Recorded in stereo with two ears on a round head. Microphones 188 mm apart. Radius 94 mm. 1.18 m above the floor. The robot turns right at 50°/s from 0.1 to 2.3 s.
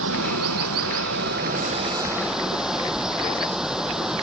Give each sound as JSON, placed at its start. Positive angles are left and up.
{"t": 0.0, "sound": "running water", "azimuth_deg": -115}